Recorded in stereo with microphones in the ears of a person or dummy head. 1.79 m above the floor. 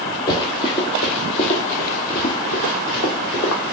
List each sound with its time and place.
0.3 s running footsteps: 20° left (ahead or behind), 2 m; by 3.7 s 50° left (ahead or behind), 3 m